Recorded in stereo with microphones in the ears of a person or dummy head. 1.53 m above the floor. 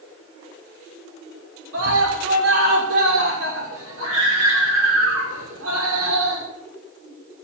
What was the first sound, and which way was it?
A scream, 85° right.